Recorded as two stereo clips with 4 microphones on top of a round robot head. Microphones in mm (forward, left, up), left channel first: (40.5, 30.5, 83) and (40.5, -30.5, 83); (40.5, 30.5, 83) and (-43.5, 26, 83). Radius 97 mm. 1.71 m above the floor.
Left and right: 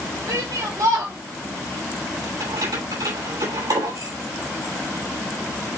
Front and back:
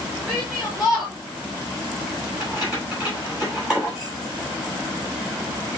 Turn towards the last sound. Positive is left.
turn(degrees=-90)